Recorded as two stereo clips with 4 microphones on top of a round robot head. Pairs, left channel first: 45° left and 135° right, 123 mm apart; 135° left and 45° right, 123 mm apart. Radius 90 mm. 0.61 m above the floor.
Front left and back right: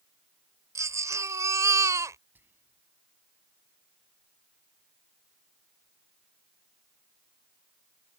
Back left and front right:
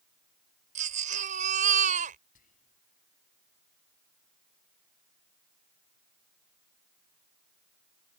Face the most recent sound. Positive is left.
turn(degrees=150)